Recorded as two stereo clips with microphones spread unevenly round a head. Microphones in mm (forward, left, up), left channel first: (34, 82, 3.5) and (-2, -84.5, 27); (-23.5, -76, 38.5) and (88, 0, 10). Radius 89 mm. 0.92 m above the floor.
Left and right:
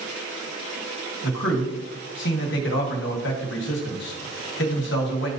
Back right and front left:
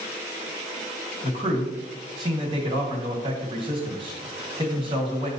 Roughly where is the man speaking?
Left.